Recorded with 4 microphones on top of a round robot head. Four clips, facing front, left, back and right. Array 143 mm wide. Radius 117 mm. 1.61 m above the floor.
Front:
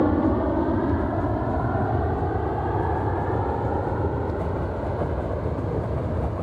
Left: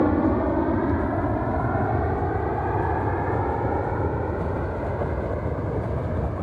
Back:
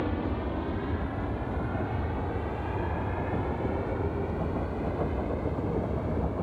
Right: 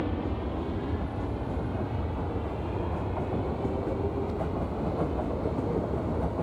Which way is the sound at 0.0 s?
50° left.